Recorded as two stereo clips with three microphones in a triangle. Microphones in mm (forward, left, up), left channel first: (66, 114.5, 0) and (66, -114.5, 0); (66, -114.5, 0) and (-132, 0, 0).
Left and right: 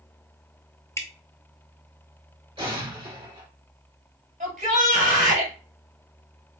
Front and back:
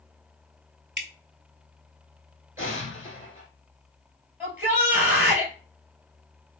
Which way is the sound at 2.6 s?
140° right.